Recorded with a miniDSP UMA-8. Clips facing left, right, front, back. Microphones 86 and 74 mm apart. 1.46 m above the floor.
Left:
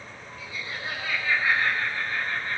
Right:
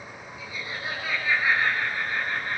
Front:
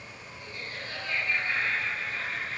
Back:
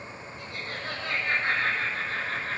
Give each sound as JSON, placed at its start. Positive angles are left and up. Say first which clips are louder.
{"t": 0.4, "sound": "laughter", "louder": "right 1 dB, back 3 dB", "azimuth_deg": -165, "distance_m": 7.5}